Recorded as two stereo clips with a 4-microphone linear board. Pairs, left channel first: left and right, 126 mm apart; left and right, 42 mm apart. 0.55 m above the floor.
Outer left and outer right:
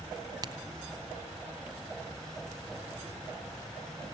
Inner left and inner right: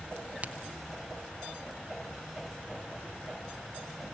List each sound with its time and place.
0.4 s a crack: 35° right (ahead or behind), 1.2 m